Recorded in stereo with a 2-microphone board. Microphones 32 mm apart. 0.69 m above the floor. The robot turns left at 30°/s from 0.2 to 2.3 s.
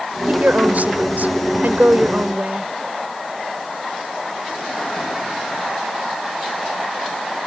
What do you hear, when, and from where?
0.3 s a woman speaking: 55° right; by 2.7 s 115° right